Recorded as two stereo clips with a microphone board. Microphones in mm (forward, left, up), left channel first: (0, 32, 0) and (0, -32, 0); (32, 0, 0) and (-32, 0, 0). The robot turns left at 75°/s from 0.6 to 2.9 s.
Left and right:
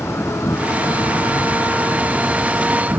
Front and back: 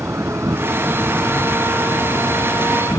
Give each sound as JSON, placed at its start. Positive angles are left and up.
{"t": 0.0, "sound": "an insect", "azimuth_deg": 135}